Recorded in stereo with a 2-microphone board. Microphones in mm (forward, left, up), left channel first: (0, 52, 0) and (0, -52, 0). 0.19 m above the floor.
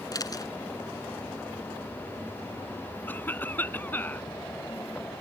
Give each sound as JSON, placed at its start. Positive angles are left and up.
{"t": 0.1, "sound": "a camera shutter", "side_deg": 35}
{"t": 3.1, "sound": "a cough", "side_deg": 20}